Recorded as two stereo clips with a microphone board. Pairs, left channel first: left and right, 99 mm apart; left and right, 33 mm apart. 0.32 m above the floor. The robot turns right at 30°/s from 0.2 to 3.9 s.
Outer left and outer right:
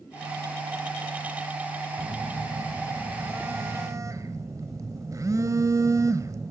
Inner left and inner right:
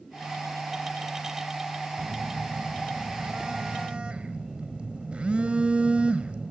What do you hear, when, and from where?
2.0 s a phone buzzing: 175° left, 1.2 m; by 6.5 s 125° right, 1.2 m